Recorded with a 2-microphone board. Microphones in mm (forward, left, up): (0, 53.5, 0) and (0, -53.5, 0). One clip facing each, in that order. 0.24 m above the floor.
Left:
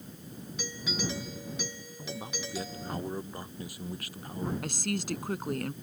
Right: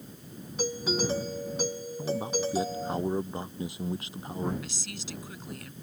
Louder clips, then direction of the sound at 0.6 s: Right 7 dB; 40° right (ahead or behind).